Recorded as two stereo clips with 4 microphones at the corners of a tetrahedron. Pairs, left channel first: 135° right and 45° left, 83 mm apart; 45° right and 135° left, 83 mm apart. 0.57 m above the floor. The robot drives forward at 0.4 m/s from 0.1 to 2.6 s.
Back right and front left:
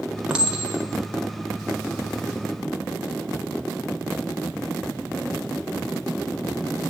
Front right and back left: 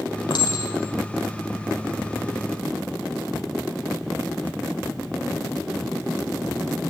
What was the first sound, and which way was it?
A clink, 30° right.